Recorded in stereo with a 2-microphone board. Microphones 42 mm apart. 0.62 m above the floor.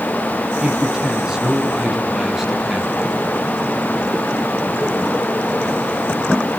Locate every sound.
0.6 s a man speaking: 20° right (ahead or behind), 4.5 m; by 3.0 s 10° right (ahead or behind), 5.5 m